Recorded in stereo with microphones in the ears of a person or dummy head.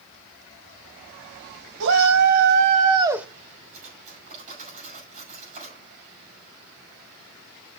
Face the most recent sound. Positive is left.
turn(degrees=-40)  # may be behind; listen again after turning